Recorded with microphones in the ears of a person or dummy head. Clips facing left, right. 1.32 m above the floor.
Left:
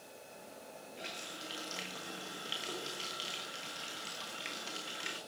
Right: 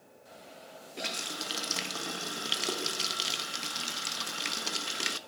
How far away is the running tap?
About 1.1 m.